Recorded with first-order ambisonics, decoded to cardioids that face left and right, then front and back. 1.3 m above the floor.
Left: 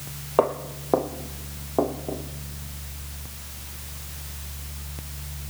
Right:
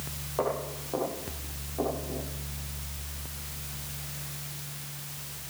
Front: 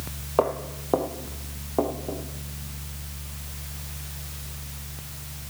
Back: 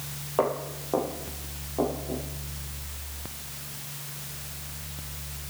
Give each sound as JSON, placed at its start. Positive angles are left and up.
{"t": 0.4, "sound": "footsteps", "azimuth_deg": 65, "distance_m": 1.7}